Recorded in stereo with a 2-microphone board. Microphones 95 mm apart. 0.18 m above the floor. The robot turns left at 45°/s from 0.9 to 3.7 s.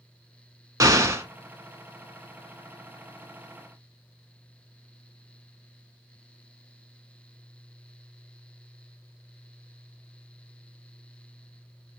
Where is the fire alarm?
I don't hear a fire alarm.